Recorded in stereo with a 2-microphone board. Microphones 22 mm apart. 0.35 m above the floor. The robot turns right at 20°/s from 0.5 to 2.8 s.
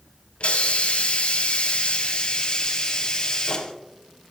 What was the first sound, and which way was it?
A hiss, 90° left.